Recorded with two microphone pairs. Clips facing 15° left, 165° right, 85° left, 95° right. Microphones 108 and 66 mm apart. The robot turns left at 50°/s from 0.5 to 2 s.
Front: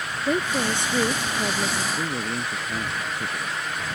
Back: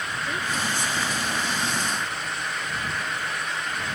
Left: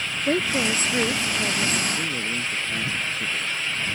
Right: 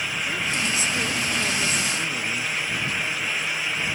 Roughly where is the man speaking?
Ahead left.